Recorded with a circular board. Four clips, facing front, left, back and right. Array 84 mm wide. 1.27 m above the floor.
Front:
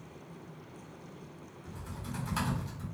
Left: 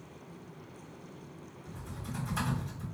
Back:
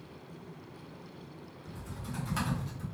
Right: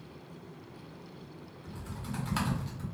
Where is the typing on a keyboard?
85° right, 1.1 m.